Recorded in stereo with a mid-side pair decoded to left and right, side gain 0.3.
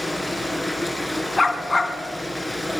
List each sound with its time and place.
0.0 s running water: 5° left, 7 m
1.4 s a dog barking: 25° left, 4 m